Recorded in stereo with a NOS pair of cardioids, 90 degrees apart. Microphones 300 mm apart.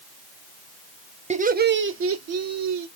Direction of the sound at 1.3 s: 20° right.